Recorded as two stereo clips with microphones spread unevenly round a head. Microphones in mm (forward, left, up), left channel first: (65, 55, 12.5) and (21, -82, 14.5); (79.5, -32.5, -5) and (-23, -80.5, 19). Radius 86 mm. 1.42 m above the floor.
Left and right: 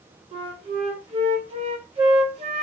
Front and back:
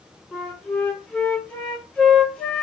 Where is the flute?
60° right, 0.9 m.